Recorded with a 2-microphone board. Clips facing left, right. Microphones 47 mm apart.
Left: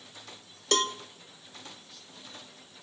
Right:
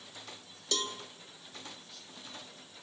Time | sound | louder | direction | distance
0.7 | a cowbell | left 8 dB | 55° left (ahead or behind) | 1.3 m